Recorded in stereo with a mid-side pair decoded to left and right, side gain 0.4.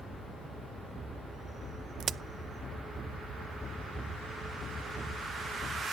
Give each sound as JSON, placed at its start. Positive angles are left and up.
{"t": 2.0, "sound": "a crack", "azimuth_deg": -60, "distance_m": 0.6}